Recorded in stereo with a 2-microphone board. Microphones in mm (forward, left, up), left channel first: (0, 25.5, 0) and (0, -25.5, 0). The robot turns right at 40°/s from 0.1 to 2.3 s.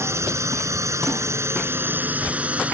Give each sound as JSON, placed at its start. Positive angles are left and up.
{"t": 0.0, "sound": "a drone", "azimuth_deg": -120}